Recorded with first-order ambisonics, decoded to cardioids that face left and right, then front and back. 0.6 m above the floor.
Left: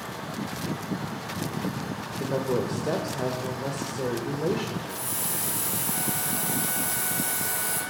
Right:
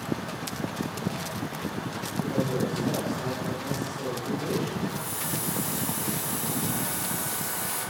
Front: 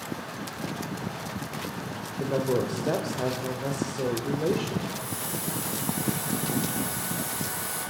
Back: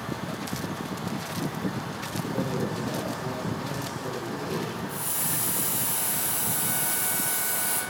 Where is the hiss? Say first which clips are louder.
Even, back 1 dB; 145° left, 9 m.